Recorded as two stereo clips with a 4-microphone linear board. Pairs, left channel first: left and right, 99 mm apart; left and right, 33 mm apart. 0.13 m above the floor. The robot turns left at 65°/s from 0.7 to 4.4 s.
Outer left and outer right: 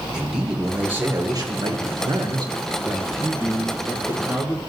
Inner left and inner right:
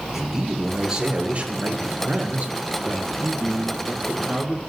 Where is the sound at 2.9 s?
20° right (ahead or behind), 1.7 m; by 4.6 s 15° right (ahead or behind), 1.7 m.